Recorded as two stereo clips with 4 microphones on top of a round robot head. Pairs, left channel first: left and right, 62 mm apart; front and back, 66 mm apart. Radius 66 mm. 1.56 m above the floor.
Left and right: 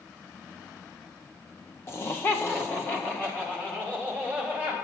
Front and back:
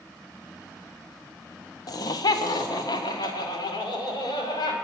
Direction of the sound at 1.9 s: 30° left.